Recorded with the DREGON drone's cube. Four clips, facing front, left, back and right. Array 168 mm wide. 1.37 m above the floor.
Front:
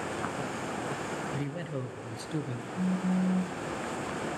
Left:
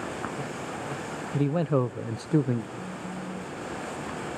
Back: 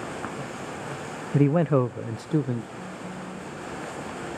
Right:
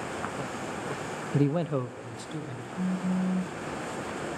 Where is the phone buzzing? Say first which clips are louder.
Right 6 dB, front 7 dB; 45° right, 0.7 m.